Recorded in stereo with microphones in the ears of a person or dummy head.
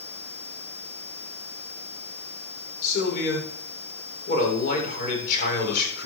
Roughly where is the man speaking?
Left.